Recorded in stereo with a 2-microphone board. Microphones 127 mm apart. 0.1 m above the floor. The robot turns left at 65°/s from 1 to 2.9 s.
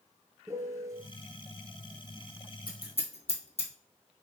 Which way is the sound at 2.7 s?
40° left (ahead or behind).